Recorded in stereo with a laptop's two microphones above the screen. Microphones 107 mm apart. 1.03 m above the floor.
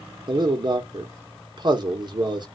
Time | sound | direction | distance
0.3 | a man speaking | 45° right (ahead or behind) | 1.0 m